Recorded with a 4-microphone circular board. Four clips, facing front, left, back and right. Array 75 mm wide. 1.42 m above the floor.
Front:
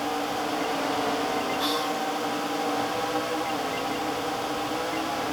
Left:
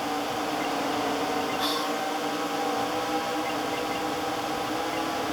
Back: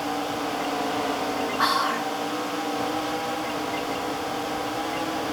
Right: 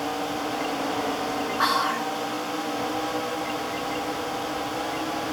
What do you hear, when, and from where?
1.6 s whispering: 130° right